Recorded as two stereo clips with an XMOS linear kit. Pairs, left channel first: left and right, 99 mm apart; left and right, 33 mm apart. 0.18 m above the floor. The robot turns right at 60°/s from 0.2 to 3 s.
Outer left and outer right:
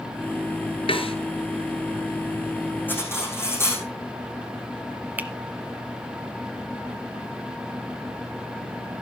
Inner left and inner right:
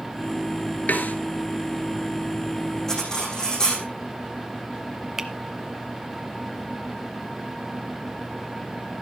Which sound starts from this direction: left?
A snare drum, at 0.9 s.